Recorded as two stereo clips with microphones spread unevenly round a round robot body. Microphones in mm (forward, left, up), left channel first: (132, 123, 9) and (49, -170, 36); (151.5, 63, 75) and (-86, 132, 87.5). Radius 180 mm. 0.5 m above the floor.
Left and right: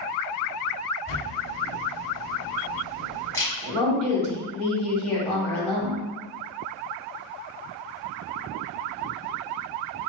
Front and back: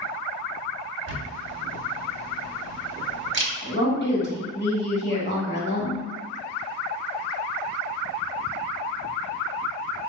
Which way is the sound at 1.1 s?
150° left.